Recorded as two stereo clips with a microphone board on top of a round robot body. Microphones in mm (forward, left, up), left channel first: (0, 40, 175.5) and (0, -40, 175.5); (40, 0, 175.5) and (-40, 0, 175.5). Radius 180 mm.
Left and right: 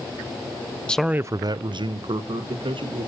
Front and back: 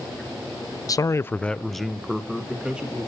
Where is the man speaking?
15° left, 0.6 m; by 3.1 s 100° right, 2 m.